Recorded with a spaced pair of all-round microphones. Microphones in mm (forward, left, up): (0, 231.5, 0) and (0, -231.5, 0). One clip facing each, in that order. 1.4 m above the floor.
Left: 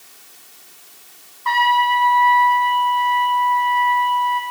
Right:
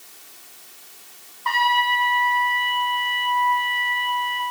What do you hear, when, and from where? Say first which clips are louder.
1.4 s a trumpet: left 5 dB; centre (ahead or behind), 6.5 m